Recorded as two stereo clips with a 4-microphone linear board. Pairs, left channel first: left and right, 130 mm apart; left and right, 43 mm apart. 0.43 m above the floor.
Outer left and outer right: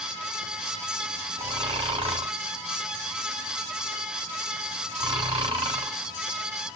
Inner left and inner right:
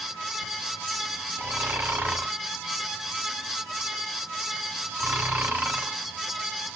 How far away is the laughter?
No laughter in this recording.